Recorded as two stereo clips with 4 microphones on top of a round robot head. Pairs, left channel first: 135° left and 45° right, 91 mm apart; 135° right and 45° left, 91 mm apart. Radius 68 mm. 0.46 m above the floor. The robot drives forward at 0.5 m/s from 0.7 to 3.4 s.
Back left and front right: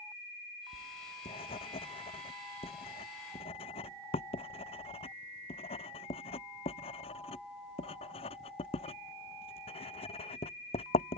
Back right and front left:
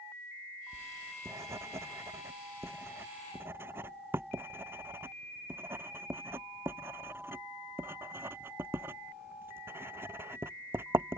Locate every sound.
0.7 s writing: 105° left; by 11.2 s 115° left